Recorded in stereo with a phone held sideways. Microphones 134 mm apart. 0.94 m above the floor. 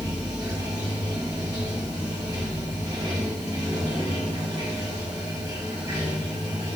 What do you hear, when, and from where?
0.0 s running water: 30° right (ahead or behind), 2.0 m